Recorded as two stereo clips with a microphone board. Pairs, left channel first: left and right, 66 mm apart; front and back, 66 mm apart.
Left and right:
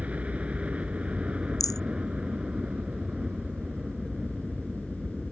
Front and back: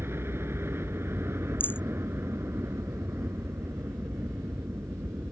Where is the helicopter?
150° right; by 5.3 s 170° right.